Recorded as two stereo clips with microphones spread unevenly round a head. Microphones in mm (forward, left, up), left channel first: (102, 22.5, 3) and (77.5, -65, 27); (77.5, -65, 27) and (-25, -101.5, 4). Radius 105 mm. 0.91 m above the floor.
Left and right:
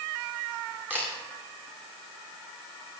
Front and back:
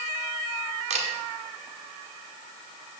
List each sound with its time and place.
0.9 s a camera shutter: 170° left, 2 m